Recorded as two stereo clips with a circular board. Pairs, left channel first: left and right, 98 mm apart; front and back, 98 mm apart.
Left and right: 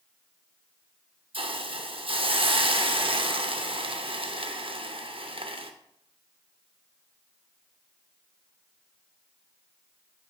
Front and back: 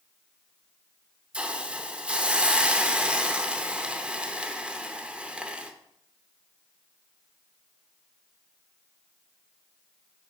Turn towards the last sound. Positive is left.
turn(degrees=-100)